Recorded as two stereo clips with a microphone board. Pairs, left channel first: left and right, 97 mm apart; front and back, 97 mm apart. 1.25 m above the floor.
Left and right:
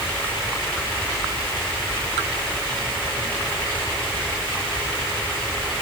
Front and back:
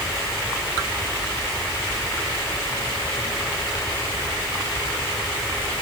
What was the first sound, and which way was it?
Only background noise.